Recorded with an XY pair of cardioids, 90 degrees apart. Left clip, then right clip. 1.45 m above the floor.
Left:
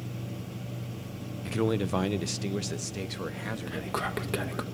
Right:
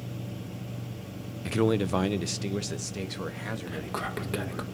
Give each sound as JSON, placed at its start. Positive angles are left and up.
{"t": 1.4, "sound": "a man speaking", "azimuth_deg": -30, "distance_m": 0.6}
{"t": 3.7, "sound": "whispering", "azimuth_deg": 15, "distance_m": 2.0}